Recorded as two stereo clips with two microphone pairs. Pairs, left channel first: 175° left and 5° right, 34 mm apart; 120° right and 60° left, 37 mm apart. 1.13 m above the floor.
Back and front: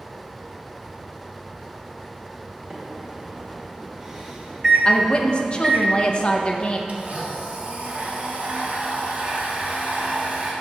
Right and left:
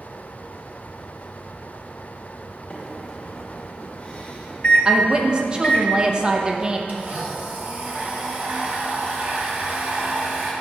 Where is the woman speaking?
120° left, 0.7 m.